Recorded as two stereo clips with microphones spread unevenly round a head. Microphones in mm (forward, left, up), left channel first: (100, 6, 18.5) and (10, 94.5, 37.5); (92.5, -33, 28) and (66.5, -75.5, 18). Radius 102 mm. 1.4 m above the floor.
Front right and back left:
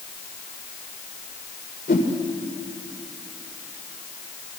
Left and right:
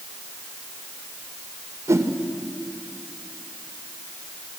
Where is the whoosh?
95° right, 2.5 m.